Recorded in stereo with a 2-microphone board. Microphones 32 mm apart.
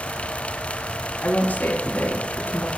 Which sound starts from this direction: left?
A woman speaking, at 1.2 s.